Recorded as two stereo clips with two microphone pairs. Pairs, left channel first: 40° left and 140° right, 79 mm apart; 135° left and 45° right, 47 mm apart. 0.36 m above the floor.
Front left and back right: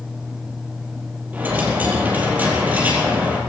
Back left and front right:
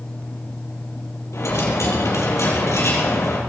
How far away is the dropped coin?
About 4.5 m.